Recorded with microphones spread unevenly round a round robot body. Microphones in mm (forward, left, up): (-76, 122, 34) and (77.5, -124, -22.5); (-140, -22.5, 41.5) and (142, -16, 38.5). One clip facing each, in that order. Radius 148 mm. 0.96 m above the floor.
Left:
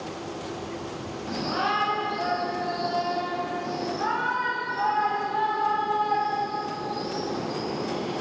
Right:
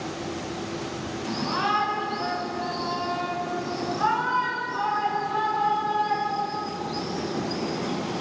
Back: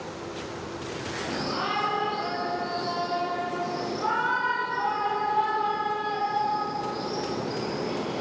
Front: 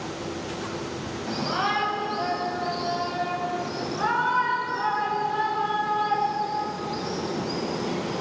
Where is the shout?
15° left, 7 m; by 8.2 s 10° right, 9 m.